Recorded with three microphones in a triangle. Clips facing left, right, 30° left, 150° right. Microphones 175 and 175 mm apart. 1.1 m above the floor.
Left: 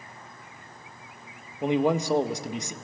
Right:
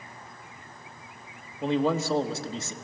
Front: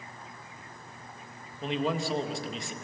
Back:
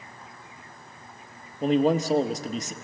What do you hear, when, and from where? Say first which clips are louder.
1.6 s a man speaking: left 2 dB, back 9 dB; 165° left, 1.1 m